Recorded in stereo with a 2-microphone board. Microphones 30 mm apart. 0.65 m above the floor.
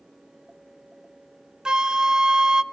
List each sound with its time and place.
1.6 s a flute: 25° right (ahead or behind), 0.5 m